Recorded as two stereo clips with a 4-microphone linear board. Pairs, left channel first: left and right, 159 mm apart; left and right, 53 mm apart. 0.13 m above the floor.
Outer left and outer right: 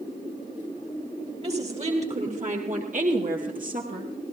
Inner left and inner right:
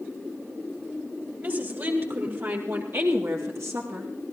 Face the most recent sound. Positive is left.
turn(degrees=-65)  # may be behind; listen again after turning